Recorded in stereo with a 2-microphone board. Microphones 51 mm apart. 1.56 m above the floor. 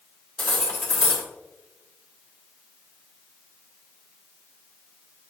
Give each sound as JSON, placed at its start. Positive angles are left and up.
{"t": 0.4, "sound": "cutlery clinking", "side_deg": 15, "distance_m": 1.9}